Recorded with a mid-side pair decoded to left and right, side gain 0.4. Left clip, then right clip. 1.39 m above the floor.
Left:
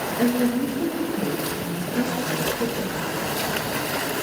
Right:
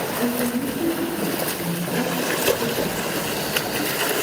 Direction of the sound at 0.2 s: 60° left.